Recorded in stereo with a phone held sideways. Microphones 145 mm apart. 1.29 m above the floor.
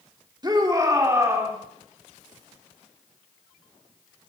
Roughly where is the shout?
Right.